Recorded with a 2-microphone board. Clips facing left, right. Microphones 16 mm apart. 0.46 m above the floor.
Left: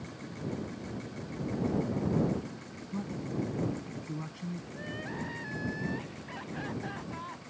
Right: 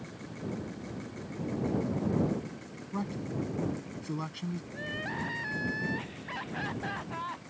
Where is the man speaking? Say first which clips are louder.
Right 1 dB; 40° right (ahead or behind).